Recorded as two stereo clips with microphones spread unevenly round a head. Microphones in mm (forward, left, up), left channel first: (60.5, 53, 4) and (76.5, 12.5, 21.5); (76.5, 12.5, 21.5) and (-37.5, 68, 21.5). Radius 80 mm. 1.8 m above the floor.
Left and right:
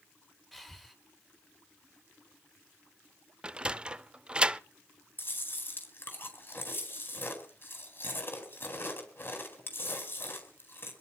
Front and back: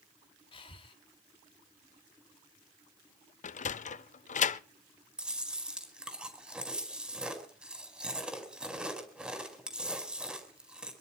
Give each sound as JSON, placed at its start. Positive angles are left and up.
{"t": 0.5, "sound": "breathing", "azimuth_deg": 15, "distance_m": 3.0}
{"t": 3.4, "sound": "a sliding door", "azimuth_deg": 0, "distance_m": 0.6}
{"t": 5.2, "sound": "chewing", "azimuth_deg": 70, "distance_m": 5.0}